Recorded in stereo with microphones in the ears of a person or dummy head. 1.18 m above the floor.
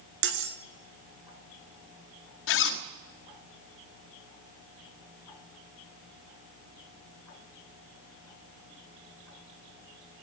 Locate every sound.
0.2 s cutlery clinking: 80° right, 1.3 m
2.5 s a zipper: 75° left (ahead or behind), 1.3 m